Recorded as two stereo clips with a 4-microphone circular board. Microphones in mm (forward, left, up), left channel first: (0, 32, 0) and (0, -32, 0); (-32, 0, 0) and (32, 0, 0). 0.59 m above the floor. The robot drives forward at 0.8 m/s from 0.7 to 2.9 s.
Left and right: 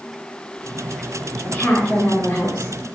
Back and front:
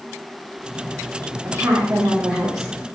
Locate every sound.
1.4 s a woman speaking: 35° left, 1.4 m; by 2.7 s 100° left, 1.1 m